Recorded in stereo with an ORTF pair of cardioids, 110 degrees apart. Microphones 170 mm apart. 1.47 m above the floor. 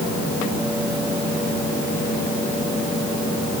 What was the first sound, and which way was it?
Only background noise.